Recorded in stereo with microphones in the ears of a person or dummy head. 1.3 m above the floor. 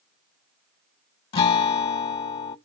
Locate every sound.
1.3 s a guitar: 30° left (ahead or behind), 0.7 m